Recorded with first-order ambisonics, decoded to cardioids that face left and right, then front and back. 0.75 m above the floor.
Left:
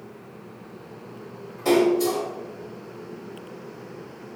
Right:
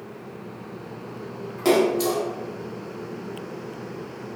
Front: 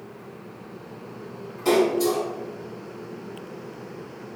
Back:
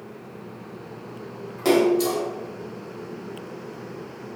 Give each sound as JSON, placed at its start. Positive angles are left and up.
{"t": 1.6, "sound": "a splash", "azimuth_deg": -135, "distance_m": 1.0}